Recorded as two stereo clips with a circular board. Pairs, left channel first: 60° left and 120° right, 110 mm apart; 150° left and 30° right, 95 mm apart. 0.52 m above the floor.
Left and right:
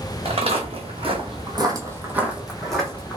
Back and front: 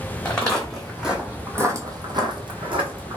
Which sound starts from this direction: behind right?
Footsteps, at 0.2 s.